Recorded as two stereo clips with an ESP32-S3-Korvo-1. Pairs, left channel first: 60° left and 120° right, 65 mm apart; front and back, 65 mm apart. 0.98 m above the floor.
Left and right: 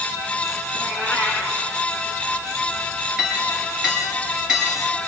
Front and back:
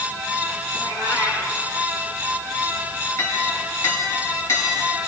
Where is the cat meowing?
10° left, 9 m.